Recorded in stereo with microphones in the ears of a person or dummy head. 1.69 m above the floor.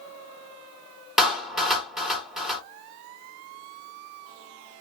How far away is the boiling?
No boiling in this recording.